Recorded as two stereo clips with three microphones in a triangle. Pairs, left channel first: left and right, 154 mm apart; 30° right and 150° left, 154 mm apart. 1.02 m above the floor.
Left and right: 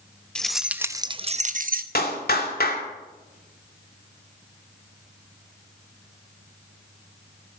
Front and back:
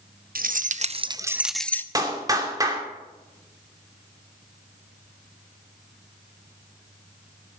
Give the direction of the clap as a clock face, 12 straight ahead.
9 o'clock.